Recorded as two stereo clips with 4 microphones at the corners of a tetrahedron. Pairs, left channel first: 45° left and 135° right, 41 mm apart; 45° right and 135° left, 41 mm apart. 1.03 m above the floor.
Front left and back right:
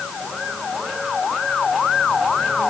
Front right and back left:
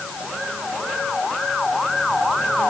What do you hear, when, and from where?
Only background noise.